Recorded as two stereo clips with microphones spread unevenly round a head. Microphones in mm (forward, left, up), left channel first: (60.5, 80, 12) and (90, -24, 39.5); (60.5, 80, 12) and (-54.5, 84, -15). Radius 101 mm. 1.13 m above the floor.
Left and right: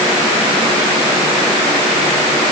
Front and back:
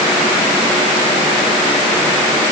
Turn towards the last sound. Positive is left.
No sound to turn to.